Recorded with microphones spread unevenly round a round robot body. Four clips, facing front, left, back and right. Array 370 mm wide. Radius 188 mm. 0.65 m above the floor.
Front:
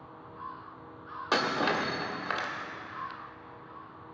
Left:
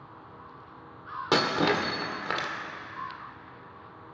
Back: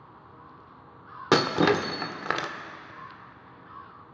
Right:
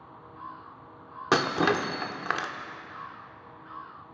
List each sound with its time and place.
1.3 s breaking glass: 175° right, 1.1 m